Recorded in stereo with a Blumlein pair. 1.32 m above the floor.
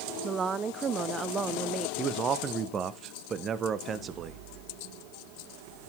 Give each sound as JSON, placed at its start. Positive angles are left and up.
{"t": 0.2, "sound": "a woman speaking", "azimuth_deg": -20, "distance_m": 0.6}
{"t": 2.0, "sound": "a man speaking", "azimuth_deg": -25, "distance_m": 1.0}